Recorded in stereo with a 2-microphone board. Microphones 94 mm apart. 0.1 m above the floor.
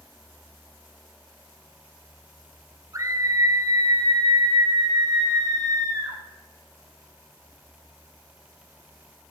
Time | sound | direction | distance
2.9 | a scream | 40° right (ahead or behind) | 2 m